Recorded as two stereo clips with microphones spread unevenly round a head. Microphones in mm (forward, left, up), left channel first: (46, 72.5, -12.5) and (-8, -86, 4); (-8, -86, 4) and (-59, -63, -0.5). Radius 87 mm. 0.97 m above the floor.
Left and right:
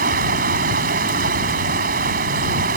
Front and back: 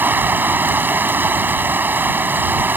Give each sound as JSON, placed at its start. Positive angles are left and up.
{"t": 0.0, "sound": "running water", "azimuth_deg": -150}